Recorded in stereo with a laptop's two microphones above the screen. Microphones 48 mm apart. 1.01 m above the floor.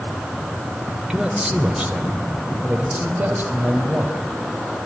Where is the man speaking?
15° right (ahead or behind), 3 m; by 4.2 s 40° right (ahead or behind), 5.5 m.